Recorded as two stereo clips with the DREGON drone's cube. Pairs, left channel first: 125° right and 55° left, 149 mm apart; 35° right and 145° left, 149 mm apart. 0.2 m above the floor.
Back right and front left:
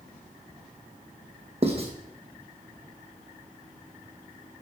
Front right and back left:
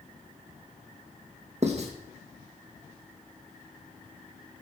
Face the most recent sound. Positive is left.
turn(degrees=105)